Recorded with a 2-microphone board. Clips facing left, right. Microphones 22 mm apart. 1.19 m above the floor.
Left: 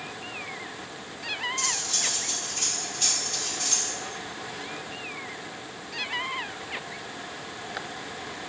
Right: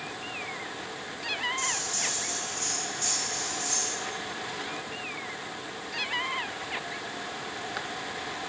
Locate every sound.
1.6 s cutlery clinking: 55° left (ahead or behind), 1.6 m